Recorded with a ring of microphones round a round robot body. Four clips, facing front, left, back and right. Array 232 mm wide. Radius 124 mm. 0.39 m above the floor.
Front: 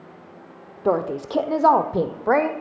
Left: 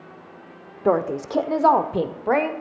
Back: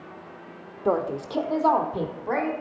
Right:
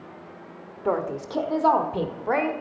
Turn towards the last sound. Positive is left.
turn(degrees=25)